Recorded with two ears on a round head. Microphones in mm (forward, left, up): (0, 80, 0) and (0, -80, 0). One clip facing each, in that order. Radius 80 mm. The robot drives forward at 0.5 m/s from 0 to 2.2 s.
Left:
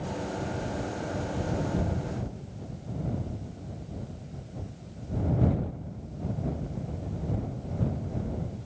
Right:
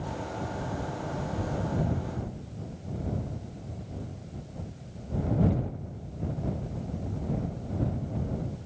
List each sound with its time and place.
Only background noise.